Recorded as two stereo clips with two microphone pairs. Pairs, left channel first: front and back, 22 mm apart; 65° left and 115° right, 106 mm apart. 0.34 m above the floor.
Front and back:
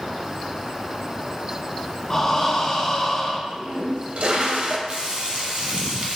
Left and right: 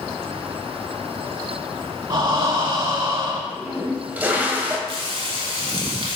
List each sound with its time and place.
2.1 s breathing: 70° right, 0.6 m
3.5 s a toilet flushing: 170° left, 0.6 m
4.9 s frying: 150° right, 1.1 m